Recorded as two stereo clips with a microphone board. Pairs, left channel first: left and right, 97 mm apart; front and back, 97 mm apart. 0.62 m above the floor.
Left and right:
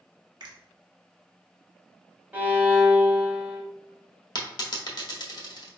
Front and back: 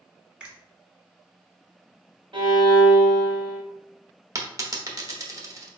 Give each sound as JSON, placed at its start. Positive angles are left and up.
{"t": 0.4, "sound": "a finger snap", "azimuth_deg": -105, "distance_m": 1.2}
{"t": 2.3, "sound": "a violin", "azimuth_deg": -160, "distance_m": 1.4}
{"t": 4.3, "sound": "a dropped coin", "azimuth_deg": 125, "distance_m": 0.8}